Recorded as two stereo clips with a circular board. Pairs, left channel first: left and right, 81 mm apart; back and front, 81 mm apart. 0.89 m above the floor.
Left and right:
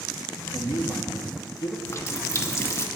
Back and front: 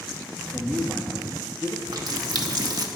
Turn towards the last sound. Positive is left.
turn(degrees=35)